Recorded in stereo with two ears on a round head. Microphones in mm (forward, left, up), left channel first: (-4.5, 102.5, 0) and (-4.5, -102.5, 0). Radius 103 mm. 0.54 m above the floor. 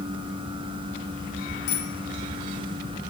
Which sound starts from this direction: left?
A bicycle bell, at 1.7 s.